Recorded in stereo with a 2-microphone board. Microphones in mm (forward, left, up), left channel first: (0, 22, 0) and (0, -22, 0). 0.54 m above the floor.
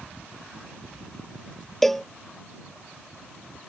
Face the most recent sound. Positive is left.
turn(degrees=0)  # may be behind; listen again after turning